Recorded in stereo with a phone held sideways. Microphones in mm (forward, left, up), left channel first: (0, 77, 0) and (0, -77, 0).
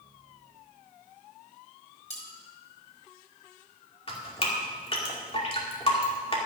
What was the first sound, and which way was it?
Cutlery clinking, 50° left (ahead or behind).